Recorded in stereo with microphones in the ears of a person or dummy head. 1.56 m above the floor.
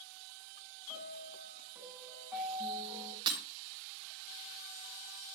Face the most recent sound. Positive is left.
turn(degrees=-25)  # may be behind; listen again after turning